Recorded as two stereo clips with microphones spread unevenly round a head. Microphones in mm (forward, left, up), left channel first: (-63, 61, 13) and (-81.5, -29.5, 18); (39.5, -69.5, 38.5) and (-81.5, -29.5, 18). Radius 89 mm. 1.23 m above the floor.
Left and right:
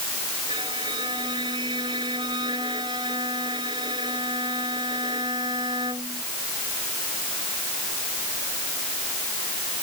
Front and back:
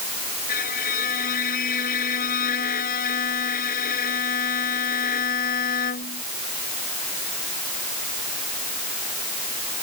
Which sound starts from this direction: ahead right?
A violin, at 0.5 s.